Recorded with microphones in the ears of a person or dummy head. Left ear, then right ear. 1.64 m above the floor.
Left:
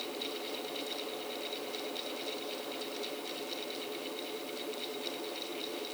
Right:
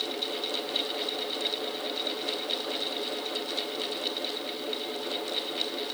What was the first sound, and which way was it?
Only background noise.